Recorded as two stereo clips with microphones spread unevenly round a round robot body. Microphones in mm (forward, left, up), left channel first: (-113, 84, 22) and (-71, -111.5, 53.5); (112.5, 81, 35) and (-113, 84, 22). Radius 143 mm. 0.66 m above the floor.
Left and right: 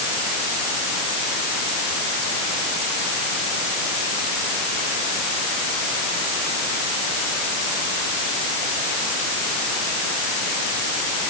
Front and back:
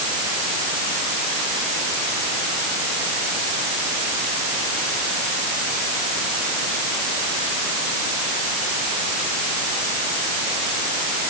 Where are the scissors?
No scissors in this recording.